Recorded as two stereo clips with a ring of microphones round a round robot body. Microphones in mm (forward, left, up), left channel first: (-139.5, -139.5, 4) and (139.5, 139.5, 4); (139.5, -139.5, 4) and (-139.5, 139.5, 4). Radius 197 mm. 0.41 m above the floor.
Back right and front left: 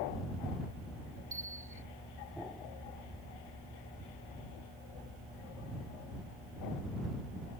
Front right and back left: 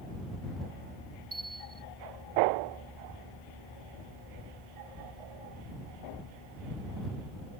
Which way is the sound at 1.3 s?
80° left.